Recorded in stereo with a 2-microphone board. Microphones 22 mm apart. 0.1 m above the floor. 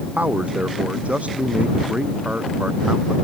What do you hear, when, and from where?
0.2 s a man speaking: 70° right (ahead or behind)